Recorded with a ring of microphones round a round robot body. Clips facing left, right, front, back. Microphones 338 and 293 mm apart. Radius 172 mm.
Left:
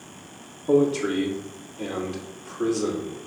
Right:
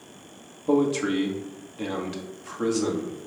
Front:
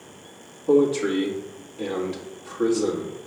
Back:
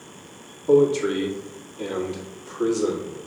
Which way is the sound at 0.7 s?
55° right.